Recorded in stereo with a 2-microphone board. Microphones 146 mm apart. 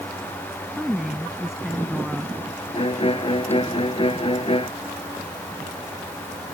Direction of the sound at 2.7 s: 40° left (ahead or behind).